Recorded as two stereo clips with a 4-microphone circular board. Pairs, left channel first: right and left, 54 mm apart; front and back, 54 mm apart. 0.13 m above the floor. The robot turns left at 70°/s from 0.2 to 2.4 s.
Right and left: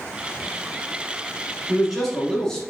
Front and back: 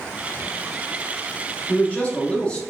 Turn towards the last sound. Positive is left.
turn(degrees=-25)